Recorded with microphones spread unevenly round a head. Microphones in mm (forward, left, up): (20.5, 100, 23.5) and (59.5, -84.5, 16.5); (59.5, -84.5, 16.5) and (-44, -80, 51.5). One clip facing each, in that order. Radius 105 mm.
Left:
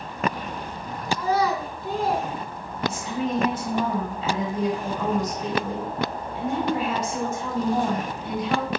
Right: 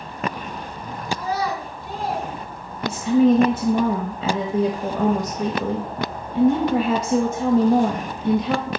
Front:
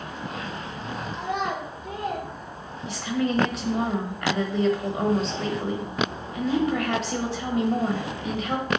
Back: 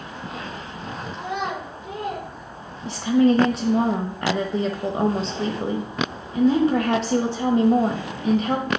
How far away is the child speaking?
About 2 m.